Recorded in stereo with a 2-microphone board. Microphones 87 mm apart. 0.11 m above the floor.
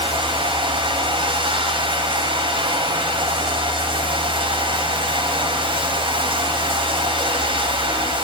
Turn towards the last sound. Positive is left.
turn(degrees=-75)  # may be behind; listen again after turning